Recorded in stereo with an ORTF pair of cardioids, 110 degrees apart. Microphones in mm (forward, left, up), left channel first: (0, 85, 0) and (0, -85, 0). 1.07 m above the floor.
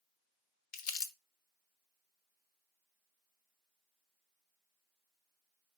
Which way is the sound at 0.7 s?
60° left.